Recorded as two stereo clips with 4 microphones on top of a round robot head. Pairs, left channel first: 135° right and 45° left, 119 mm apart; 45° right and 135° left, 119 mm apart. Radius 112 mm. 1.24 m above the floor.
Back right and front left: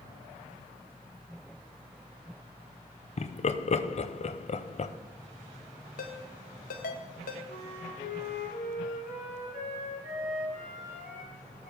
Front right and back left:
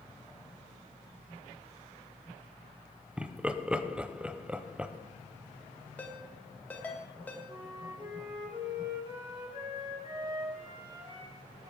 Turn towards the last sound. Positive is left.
turn(degrees=-165)